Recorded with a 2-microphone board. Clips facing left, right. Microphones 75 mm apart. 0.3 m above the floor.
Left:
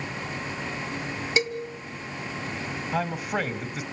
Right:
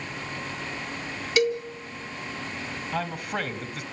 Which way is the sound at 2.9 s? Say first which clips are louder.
Left 3 dB; 15° left (ahead or behind).